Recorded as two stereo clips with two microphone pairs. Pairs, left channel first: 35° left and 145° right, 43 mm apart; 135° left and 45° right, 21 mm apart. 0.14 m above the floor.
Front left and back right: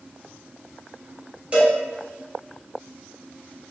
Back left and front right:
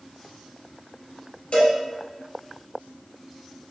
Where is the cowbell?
160° left, 1.3 m.